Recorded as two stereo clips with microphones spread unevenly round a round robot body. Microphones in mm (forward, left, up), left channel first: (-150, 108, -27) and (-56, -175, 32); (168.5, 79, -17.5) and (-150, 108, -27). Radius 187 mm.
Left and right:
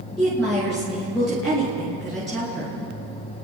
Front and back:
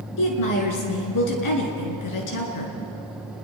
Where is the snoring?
I don't hear snoring.